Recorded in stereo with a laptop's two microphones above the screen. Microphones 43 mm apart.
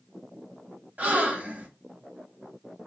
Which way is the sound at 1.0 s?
35° right (ahead or behind).